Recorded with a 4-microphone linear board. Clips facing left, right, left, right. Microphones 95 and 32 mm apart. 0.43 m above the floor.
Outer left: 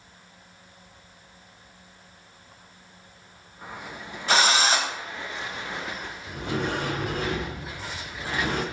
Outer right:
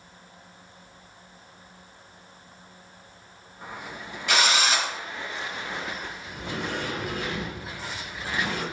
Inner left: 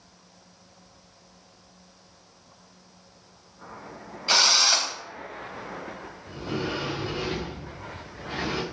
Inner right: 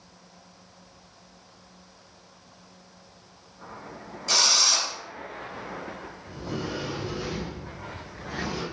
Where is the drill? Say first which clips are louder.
Outer left 2 dB, inner left 2 dB; 35° left (ahead or behind), 1.7 m.